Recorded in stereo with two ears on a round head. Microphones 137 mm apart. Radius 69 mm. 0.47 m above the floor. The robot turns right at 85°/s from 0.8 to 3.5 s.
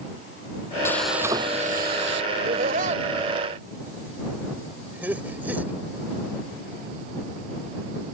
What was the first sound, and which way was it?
Frying, 165° left.